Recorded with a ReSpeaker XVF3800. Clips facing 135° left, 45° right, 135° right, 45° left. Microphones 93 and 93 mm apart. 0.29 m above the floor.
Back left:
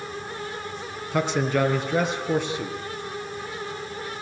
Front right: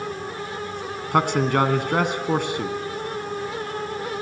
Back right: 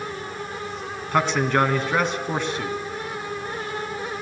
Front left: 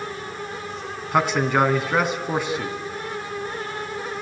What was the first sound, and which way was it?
A man speaking, 35° right.